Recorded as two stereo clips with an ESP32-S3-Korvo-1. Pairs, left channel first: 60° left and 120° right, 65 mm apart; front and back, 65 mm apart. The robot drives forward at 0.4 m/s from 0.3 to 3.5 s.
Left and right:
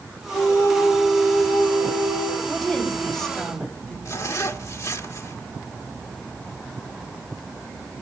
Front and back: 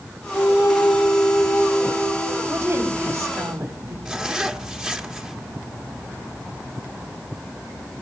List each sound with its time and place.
0.3 s a flute: 35° left, 1.9 m; by 2.4 s 60° left, 1.4 m
2.5 s a woman speaking: 140° left, 4.5 m; by 4.0 s 145° left, 4.5 m
4.0 s a zipper: 100° left, 1.4 m